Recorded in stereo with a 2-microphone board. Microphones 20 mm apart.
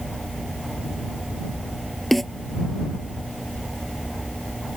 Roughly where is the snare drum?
Centre.